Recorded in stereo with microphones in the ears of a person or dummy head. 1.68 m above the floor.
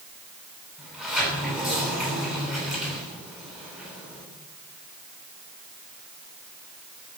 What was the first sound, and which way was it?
A sliding door, centre (ahead or behind).